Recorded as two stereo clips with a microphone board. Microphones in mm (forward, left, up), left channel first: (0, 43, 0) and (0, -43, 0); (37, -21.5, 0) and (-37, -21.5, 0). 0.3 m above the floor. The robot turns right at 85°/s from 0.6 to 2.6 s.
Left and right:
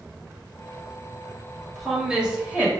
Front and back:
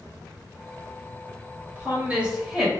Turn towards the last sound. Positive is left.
turn(degrees=-110)